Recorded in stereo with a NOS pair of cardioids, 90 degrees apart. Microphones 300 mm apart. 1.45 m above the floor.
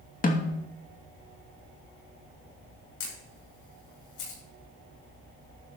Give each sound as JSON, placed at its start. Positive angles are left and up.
{"t": 0.2, "sound": "a snare drum", "azimuth_deg": 25, "distance_m": 2.5}
{"t": 3.0, "sound": "a camera shutter", "azimuth_deg": 70, "distance_m": 7.0}